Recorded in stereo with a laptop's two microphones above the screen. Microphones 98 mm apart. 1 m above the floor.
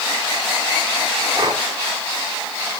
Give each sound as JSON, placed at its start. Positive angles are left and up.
{"t": 1.3, "sound": "breathing", "side_deg": -50, "distance_m": 2.5}